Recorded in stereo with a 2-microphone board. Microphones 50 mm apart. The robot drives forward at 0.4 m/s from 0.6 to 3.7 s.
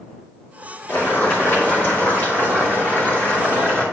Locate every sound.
0.9 s boiling: 45° left (ahead or behind), 2.5 m; by 3.8 s 30° left (ahead or behind), 3.5 m